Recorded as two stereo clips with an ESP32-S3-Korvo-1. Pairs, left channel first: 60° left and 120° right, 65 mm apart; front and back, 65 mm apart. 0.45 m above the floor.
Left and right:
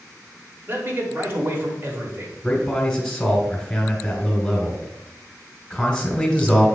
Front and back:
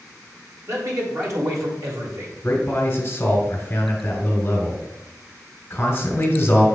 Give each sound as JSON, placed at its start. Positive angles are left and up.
{"t": 0.7, "sound": "a man speaking", "azimuth_deg": -165, "distance_m": 1.4}
{"t": 2.4, "sound": "a man speaking", "azimuth_deg": -10, "distance_m": 1.6}